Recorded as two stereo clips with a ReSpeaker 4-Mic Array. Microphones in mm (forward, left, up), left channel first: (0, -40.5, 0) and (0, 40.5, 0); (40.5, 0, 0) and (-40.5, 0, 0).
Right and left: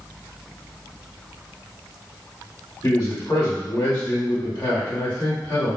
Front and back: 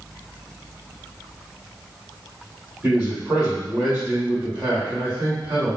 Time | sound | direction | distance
2.8 | a man speaking | 115° right | 1.7 m